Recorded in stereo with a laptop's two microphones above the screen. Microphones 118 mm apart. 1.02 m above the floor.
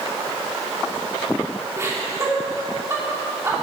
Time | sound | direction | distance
1.8 | laughter | 25° right (ahead or behind) | 2 m